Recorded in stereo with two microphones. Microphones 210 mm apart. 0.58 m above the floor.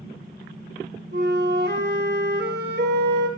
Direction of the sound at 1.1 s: 55° right (ahead or behind).